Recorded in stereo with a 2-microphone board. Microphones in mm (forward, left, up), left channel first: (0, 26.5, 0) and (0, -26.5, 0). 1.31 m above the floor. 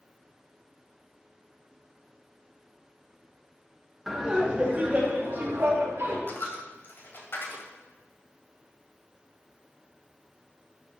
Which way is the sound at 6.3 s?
45° left (ahead or behind).